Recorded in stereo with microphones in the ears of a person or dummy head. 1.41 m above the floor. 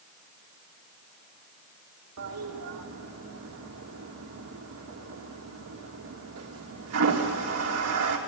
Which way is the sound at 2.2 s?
80° right.